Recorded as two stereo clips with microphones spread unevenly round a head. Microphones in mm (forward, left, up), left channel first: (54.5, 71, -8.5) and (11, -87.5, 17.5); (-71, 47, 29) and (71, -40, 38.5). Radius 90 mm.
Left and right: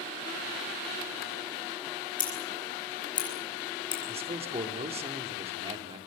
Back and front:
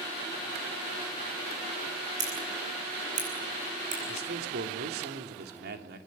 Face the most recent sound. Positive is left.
turn(degrees=-50)